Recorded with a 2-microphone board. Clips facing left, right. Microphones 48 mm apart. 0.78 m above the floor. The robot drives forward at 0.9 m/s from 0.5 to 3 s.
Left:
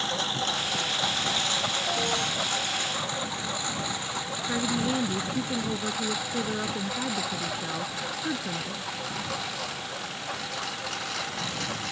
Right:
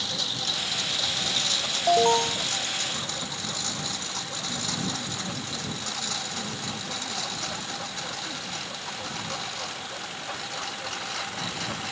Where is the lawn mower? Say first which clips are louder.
Left 4 dB; 35° left (ahead or behind); by 11.9 s centre (ahead or behind).